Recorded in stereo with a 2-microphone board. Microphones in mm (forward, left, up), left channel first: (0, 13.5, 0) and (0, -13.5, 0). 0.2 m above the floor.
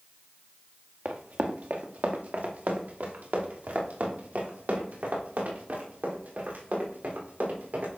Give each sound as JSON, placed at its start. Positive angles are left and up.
{"t": 1.1, "sound": "running footsteps", "side_deg": -80, "distance_m": 1.3}